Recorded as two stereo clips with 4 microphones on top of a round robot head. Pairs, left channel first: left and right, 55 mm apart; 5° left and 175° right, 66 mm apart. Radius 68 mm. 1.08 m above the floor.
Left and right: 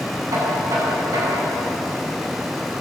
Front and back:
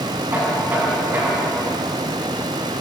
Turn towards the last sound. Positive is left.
turn(degrees=-110)